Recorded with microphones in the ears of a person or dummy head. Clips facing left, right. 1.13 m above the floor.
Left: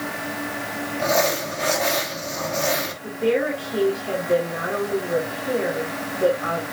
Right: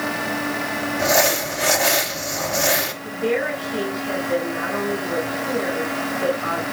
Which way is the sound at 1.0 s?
10° right (ahead or behind).